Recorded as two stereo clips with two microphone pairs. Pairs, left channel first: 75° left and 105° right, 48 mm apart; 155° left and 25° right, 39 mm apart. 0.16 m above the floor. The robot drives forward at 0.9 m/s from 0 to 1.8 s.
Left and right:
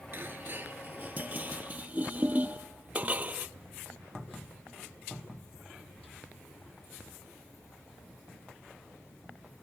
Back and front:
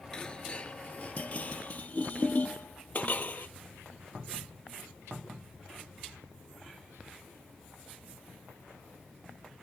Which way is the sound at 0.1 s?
140° right.